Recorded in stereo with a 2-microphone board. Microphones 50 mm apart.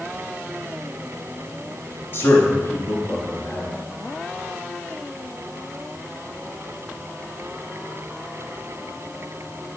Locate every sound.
2.1 s a man speaking: 50° left (ahead or behind), 1.6 m; by 3.7 s 55° left (ahead or behind), 2.5 m